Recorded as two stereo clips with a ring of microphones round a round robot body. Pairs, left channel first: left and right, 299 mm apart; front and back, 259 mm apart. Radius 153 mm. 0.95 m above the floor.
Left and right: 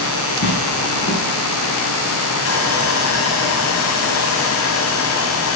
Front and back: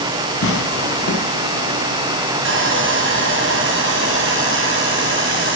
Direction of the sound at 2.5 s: 135° left.